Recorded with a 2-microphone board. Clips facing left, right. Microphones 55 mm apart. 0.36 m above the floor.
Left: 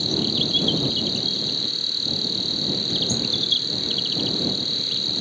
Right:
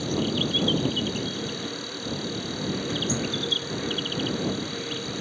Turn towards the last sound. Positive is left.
turn(degrees=-30)  # may be behind; listen again after turning